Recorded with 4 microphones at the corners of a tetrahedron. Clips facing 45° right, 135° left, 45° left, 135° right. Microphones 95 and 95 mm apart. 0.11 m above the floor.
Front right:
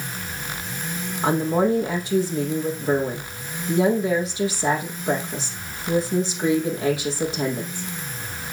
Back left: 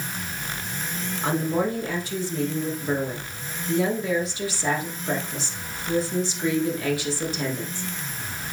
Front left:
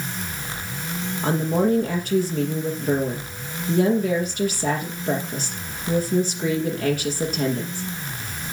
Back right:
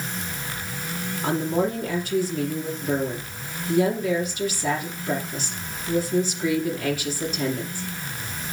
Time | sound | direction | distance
1.2 | a woman speaking | 20° left | 3.5 m